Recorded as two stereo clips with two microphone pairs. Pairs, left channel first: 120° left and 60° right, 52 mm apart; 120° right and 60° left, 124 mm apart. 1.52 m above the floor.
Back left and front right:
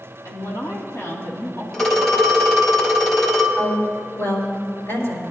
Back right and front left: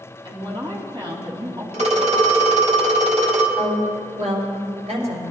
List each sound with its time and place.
0.2 s a woman speaking: 105° left, 2.5 m
1.7 s a phone ringing: 40° left, 2 m
3.6 s a woman speaking: 85° left, 4.5 m